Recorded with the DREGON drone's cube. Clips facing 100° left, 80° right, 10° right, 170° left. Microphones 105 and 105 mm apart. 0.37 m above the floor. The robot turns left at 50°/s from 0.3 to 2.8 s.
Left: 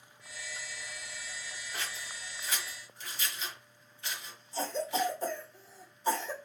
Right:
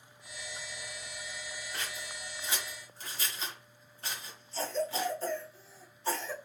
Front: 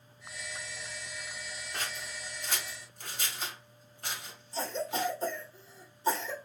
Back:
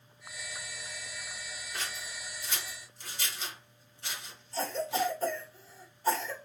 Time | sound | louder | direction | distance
1.7 | scissors | left 2 dB, front 1 dB | 15° left | 1.5 m
4.5 | a cough | left 1 dB, back 2 dB | 40° left | 1.2 m